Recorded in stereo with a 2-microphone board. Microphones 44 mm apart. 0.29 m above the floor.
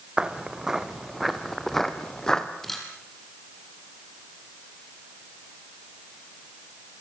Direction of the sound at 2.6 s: 5° left (ahead or behind).